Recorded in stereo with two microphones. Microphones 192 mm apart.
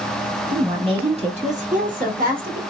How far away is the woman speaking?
About 1.3 m.